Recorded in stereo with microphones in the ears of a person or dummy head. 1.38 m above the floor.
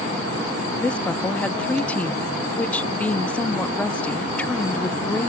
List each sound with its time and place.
0.8 s a woman speaking: 10° left (ahead or behind), 0.5 m